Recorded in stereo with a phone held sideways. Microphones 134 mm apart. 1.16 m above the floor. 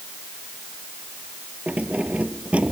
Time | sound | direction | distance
1.7 | keys jangling | 10° right (ahead or behind) | ?